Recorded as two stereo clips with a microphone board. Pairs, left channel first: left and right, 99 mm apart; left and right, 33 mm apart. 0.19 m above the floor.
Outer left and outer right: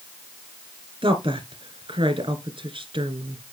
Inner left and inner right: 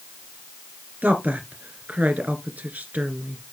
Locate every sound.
1.0 s a woman speaking: 60° right (ahead or behind), 2.5 m